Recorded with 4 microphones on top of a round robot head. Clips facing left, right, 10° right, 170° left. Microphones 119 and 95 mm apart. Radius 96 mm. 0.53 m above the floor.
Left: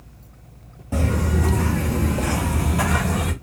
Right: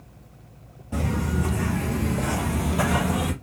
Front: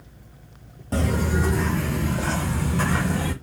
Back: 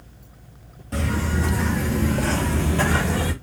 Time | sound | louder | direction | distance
0.9 | footsteps | left 3 dB, front 2 dB | 35° left | 0.7 m